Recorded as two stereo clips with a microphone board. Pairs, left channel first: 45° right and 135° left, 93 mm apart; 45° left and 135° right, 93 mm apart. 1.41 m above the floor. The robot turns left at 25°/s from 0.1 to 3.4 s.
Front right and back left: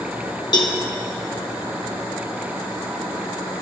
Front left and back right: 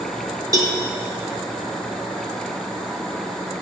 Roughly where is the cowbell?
Right.